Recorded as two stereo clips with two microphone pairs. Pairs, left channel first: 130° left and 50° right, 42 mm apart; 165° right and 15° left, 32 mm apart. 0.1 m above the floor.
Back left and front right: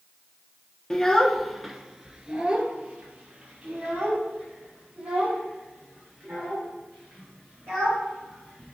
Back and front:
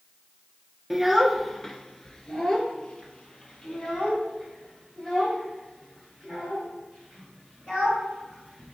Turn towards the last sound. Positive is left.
turn(degrees=-105)